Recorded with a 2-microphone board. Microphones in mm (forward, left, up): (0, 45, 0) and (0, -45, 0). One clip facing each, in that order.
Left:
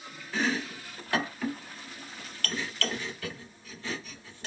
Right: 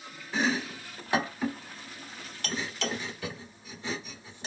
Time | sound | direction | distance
0.3 | chopping | 20° right (ahead or behind) | 0.5 m